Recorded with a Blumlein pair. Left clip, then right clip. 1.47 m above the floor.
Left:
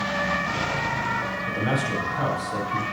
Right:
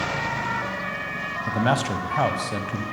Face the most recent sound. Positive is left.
turn(degrees=-25)